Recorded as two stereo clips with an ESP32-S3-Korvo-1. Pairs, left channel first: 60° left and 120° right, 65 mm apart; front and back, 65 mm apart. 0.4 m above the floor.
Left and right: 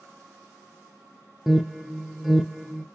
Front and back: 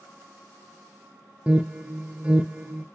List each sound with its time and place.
1.5 s an alarm: 155° left, 0.5 m